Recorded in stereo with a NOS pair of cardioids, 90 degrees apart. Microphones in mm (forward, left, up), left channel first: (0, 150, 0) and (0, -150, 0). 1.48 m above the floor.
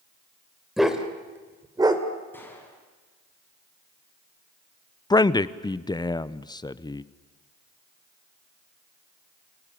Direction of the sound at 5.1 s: 15° left.